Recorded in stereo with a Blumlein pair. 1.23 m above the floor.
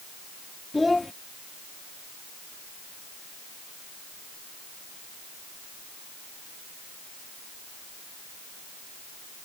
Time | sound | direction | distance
0.7 | a child speaking | 5° left | ?